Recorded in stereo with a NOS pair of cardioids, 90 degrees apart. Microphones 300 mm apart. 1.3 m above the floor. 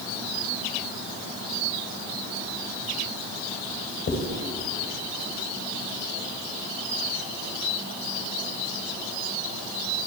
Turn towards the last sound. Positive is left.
turn(degrees=45)